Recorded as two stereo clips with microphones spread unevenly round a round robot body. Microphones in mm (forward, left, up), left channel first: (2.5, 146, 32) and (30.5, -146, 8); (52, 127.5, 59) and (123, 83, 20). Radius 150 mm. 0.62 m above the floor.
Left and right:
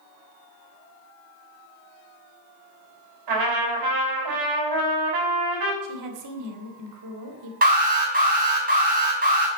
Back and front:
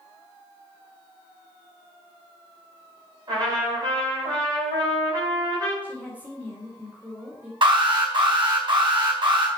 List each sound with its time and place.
3.3 s a trumpet: 80° right, 4.5 m
5.8 s a woman speaking: 100° right, 2.5 m
7.6 s an alarm: 25° right, 4.5 m